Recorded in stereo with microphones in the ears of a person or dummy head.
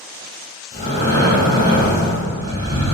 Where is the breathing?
65° left (ahead or behind), 1.9 m.